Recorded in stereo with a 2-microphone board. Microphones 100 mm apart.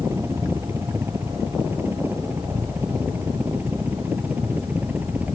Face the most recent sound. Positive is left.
turn(degrees=-15)  # may be behind; listen again after turning